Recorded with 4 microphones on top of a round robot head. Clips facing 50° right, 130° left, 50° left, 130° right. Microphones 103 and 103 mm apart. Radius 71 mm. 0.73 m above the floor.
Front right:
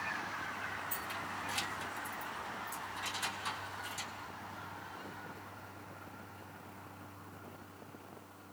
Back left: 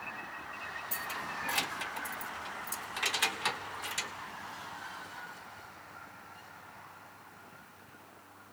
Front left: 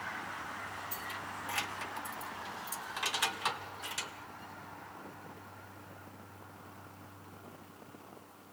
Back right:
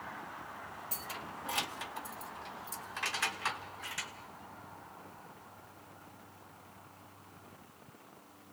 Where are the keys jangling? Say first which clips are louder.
Back left 2 dB, front left 2 dB; 170° right, 0.8 m; by 4.1 s 115° left, 2 m.